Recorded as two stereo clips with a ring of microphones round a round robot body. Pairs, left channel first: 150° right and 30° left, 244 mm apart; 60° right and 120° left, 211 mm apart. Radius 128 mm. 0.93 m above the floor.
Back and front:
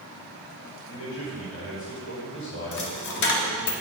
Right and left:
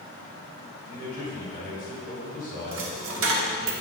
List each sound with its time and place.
0.9 s a man speaking: 110° right, 3.5 m
2.7 s a dropped coin: 165° left, 1.0 m